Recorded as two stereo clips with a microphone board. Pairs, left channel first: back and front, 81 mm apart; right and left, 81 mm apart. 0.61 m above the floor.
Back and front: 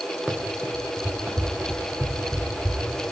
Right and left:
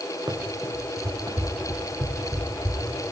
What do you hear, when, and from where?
0.3 s running footsteps: 70° left, 4.5 m; by 3.0 s 50° left, 6 m